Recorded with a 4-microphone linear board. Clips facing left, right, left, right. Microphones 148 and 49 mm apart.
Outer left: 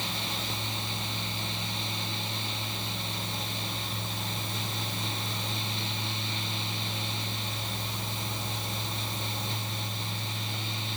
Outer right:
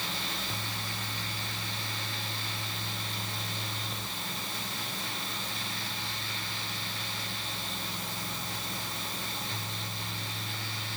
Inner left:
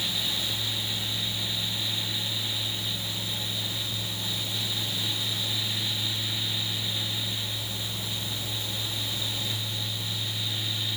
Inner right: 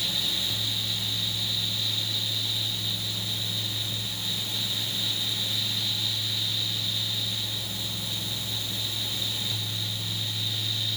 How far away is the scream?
I don't hear a scream.